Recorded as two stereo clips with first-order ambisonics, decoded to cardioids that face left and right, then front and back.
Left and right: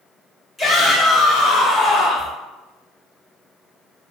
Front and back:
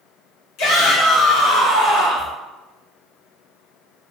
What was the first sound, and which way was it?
A shout, straight ahead.